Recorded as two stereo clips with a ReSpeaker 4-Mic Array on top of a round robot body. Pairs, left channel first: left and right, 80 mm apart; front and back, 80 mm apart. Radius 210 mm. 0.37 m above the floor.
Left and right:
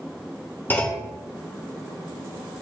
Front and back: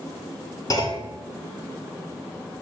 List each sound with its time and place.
0.7 s a clunk: 30° left, 1.9 m